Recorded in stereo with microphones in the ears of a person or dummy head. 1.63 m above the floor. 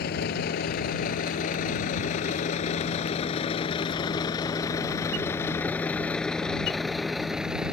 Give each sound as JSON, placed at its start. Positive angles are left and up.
{"t": 0.0, "sound": "a vehicle", "side_deg": 60}